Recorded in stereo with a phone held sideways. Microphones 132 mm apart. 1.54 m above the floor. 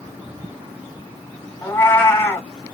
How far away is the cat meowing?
About 1.4 m.